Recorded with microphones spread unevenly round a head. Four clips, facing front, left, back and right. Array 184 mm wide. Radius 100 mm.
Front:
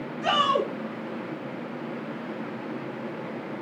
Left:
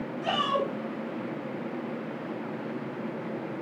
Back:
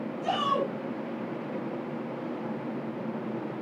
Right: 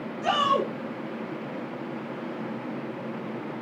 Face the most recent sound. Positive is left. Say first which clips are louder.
# right 4 dB, front 4 dB
turn(degrees=-35)